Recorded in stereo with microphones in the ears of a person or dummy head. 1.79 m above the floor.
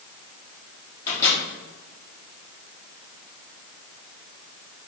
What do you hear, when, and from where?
1.1 s a microwave: 20° left (ahead or behind), 4 m